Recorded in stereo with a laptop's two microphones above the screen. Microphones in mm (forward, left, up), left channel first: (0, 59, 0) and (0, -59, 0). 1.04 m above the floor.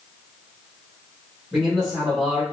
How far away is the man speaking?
About 1.6 m.